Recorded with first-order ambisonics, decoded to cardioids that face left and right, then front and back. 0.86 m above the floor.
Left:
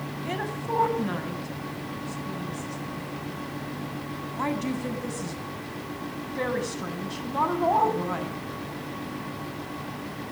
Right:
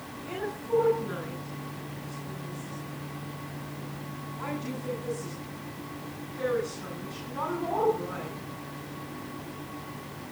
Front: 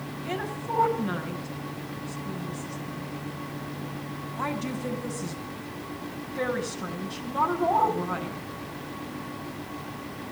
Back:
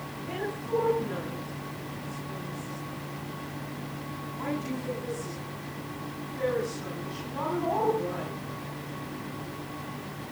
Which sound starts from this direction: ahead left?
A woman speaking, at 0.2 s.